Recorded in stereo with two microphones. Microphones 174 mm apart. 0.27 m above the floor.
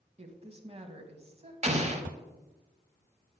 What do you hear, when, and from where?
0.2 s a woman speaking: 35° right (ahead or behind), 1.3 m
1.6 s an explosion: 40° right (ahead or behind), 1.0 m